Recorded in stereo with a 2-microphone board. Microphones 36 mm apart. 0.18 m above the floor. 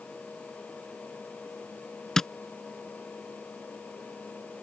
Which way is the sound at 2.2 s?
15° left (ahead or behind).